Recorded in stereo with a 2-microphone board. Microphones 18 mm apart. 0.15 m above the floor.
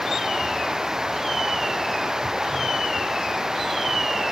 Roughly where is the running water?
Right.